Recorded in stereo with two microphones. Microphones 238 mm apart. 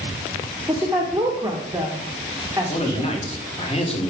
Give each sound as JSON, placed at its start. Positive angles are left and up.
{"t": 0.7, "sound": "a woman speaking", "side_deg": -15, "distance_m": 0.9}
{"t": 2.7, "sound": "a man speaking", "side_deg": 25, "distance_m": 1.3}